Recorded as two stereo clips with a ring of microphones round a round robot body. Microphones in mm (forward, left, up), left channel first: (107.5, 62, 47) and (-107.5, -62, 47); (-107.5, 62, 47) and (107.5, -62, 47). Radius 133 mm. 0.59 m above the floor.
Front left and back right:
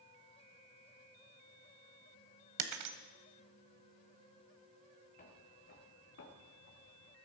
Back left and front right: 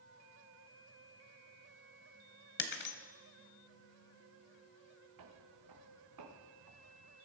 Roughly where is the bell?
I don't hear a bell.